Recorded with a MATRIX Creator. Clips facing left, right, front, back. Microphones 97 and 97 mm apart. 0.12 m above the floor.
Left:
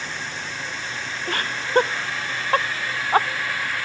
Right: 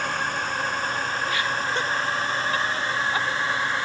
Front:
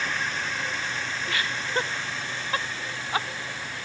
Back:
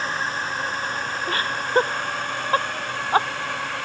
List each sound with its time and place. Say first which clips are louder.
0.0 s a drone: right 6 dB, back 4 dB; 130° right; by 3.9 s 155° right
1.3 s laughter: left 1 dB, back 7 dB; 130° left